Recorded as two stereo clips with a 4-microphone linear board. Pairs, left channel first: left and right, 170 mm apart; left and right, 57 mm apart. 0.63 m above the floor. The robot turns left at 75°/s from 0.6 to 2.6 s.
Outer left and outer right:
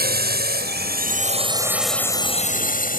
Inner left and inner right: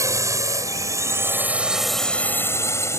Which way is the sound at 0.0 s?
60° right (ahead or behind).